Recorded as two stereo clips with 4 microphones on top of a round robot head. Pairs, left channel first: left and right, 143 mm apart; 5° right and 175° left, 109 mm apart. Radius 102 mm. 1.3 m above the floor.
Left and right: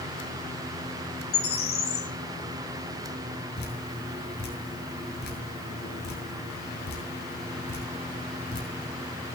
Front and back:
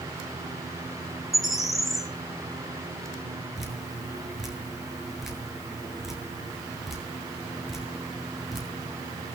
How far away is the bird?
About 6.5 m.